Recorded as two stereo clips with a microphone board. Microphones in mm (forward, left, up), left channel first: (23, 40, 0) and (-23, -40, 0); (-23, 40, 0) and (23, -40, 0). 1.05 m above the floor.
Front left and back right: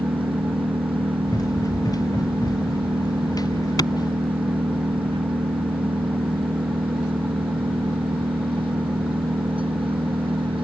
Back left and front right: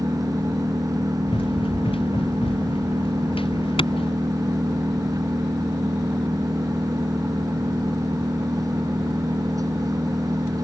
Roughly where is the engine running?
Right.